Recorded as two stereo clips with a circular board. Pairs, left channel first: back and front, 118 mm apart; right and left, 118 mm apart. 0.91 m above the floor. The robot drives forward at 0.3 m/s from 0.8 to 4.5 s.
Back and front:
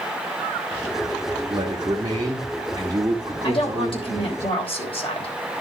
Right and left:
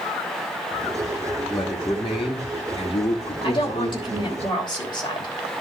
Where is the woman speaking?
140° right, 3 m.